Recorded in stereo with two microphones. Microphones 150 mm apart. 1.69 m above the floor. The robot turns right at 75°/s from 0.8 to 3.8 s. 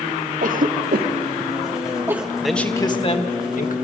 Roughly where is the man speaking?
Ahead.